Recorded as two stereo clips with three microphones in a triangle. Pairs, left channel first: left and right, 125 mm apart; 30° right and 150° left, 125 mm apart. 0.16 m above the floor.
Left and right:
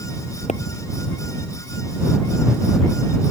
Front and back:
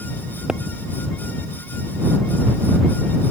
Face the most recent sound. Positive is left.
turn(degrees=65)